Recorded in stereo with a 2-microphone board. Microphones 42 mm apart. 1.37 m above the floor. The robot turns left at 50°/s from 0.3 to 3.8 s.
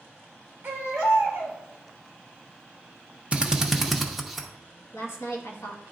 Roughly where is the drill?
Right.